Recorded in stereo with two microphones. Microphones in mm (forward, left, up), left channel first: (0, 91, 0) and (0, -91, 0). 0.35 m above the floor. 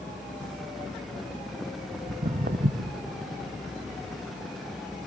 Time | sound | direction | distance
2.1 | footsteps | 65° right (ahead or behind) | 0.9 m